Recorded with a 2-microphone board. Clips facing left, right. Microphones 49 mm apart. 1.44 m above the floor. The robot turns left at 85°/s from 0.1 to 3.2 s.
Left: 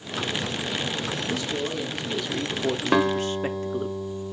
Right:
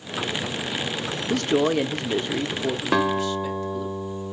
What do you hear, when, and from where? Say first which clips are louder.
1.3 s a man speaking: right 12 dB; 65° right, 0.7 m; by 3.9 s 135° left, 0.7 m
2.9 s a guitar: even; 5° left (ahead or behind), 1.4 m; by 4.3 s 20° right (ahead or behind), 1.4 m